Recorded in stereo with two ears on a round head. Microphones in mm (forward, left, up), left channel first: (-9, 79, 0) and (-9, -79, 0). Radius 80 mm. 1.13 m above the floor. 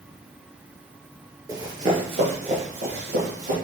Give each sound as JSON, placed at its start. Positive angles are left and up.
{"t": 1.5, "sound": "running footsteps", "side_deg": -20, "distance_m": 1.1}